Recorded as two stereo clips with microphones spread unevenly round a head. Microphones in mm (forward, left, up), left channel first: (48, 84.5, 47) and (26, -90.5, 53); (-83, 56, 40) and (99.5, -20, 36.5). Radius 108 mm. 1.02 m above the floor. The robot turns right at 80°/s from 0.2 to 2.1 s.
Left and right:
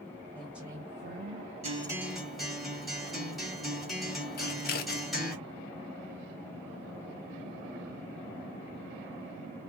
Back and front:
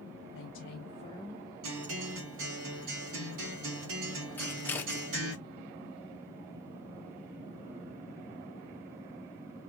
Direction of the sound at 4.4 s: 85° left.